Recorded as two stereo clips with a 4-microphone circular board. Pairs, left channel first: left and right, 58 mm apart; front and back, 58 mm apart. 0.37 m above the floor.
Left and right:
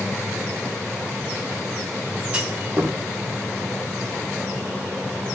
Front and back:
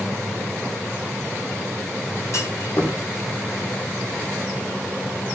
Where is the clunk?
20° right, 3 m.